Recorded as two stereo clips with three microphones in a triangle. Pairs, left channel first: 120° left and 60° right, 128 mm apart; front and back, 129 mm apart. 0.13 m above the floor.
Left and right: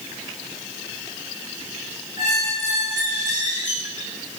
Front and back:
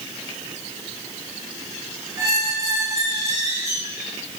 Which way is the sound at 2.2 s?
115° left.